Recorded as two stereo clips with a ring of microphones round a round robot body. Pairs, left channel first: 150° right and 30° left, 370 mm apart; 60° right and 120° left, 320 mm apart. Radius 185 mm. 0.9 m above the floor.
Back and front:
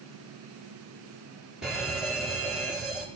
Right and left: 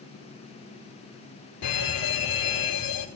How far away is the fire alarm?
About 4.5 m.